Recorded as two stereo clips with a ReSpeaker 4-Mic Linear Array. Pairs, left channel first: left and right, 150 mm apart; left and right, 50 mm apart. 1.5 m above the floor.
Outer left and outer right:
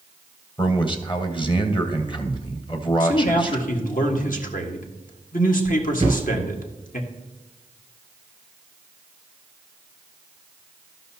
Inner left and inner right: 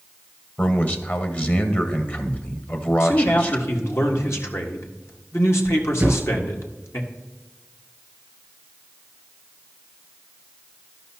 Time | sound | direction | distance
0.6 | a man speaking | 35° left (ahead or behind) | 1.3 m
3.0 | a man speaking | 65° left (ahead or behind) | 1.7 m
6.0 | a thud | 35° right (ahead or behind) | 2 m